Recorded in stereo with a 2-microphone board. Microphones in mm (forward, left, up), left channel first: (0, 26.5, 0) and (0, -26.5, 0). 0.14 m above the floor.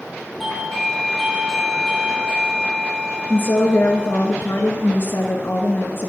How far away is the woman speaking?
About 1.7 m.